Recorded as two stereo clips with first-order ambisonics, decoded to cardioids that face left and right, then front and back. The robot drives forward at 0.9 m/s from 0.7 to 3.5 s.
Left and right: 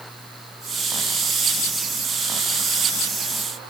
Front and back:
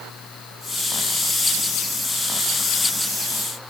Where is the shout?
I don't hear a shout.